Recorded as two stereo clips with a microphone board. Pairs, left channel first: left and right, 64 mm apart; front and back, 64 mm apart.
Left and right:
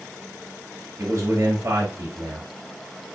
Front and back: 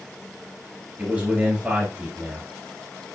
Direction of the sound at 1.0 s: 115° right.